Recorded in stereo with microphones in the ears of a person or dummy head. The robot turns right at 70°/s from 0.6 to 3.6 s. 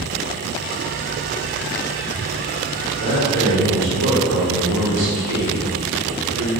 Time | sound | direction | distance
3.0 | a man speaking | 145° right | 0.8 m